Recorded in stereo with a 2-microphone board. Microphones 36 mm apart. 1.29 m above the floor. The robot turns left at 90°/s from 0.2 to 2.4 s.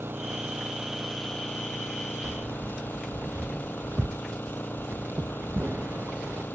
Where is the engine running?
100° right; by 6.5 s 65° left.